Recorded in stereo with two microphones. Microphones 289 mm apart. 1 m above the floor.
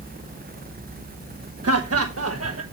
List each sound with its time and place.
1.6 s laughter: 60° right (ahead or behind), 0.9 m